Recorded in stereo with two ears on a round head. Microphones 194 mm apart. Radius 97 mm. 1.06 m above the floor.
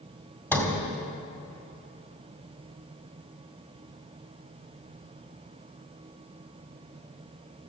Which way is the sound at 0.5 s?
10° left (ahead or behind).